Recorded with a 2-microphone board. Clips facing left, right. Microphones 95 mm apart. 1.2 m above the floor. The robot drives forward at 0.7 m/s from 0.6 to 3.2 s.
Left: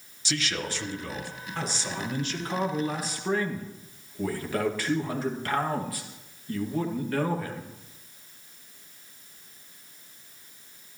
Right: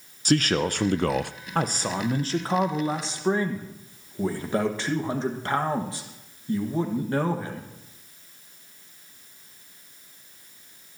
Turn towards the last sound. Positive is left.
turn(degrees=-25)  # may be behind; listen again after turning